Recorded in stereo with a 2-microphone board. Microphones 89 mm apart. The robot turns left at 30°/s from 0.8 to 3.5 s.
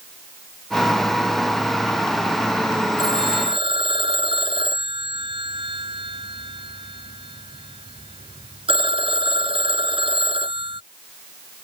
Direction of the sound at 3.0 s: 60° right (ahead or behind).